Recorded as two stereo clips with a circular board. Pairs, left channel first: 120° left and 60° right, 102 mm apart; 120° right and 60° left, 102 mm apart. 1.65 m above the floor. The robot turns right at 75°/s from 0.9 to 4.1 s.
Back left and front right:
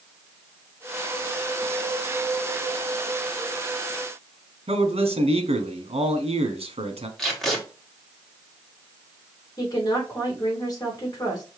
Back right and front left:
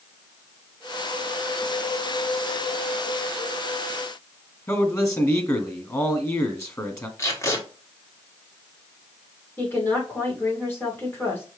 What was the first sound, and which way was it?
A man speaking, 60° right.